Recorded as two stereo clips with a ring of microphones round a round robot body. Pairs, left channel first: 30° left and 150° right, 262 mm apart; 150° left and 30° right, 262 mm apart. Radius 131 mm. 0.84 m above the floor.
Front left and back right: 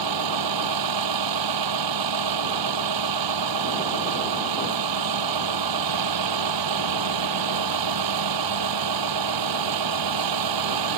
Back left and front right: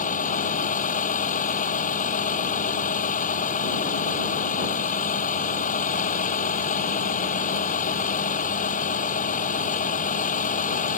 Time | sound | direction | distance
0.0 | a vehicle | 150° right | ?